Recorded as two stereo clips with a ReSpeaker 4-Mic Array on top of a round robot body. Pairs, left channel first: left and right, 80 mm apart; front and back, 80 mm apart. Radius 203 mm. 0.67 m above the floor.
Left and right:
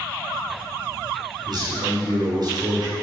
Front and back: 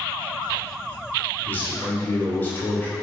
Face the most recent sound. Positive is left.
turn(degrees=-65)